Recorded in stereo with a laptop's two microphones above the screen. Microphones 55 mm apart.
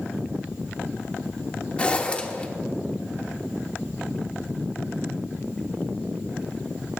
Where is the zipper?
20° left (ahead or behind), 1.2 m.